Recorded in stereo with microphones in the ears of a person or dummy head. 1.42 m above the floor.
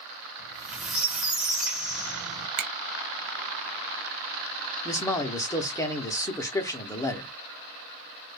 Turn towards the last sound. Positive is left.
turn(degrees=15)  # may be behind; listen again after turning